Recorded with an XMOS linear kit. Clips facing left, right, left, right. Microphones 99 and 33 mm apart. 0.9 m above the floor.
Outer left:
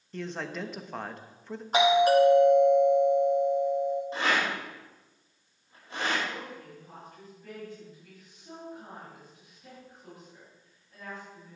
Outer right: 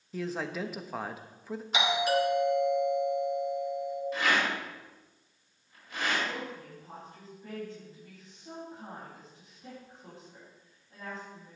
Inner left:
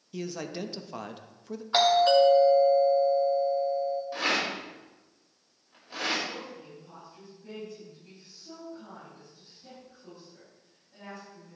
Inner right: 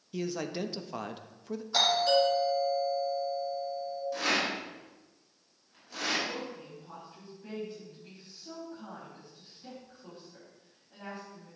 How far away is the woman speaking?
About 5.5 m.